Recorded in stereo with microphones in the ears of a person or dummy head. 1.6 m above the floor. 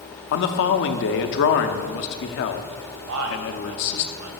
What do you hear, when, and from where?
0.3 s a man speaking: 60° left (ahead or behind), 0.6 m
3.1 s a man speaking: 70° right (ahead or behind), 1.1 m